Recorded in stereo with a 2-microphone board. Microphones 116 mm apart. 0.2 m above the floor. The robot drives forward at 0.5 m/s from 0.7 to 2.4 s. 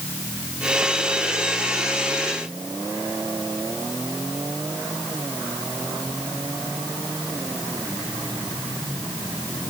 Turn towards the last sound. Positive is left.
No sound to turn to.